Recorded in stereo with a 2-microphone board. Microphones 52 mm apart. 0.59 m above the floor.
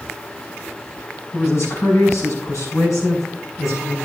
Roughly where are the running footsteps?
I don't hear running footsteps.